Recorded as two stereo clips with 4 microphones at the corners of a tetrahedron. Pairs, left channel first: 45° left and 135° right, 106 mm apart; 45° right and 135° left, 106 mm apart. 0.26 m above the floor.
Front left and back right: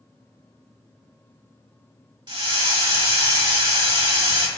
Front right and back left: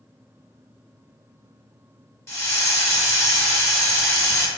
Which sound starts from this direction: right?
A hiss, at 2.3 s.